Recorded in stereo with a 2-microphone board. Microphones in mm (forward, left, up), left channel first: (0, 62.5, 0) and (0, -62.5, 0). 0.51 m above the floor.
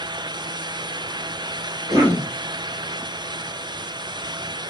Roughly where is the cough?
Right.